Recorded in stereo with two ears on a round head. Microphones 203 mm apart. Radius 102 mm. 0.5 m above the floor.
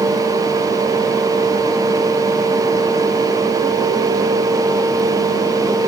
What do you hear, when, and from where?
Only background noise.